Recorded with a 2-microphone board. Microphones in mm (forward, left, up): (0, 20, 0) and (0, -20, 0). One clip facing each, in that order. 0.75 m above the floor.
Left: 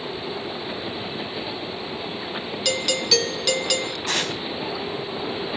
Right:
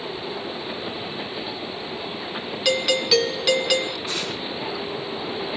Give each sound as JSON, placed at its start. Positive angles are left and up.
{"t": 2.6, "sound": "a doorbell", "side_deg": -15, "distance_m": 1.1}
{"t": 4.1, "sound": "tearing paper", "side_deg": 85, "distance_m": 4.5}